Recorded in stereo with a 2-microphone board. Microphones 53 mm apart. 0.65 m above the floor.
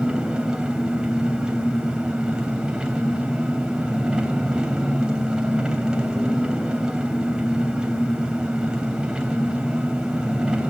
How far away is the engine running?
About 3.5 m.